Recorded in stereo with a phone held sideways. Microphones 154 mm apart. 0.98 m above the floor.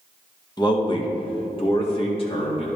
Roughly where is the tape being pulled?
No tape being pulled in this recording.